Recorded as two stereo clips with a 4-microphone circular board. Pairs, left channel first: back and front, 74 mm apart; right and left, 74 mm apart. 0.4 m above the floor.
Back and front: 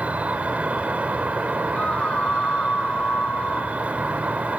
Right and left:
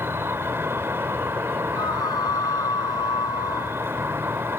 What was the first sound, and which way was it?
An insect, 60° left.